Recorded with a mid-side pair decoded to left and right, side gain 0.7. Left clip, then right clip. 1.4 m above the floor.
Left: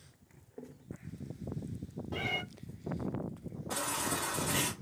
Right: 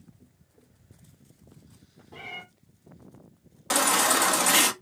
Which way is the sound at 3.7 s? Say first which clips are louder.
Right 13 dB; 65° right.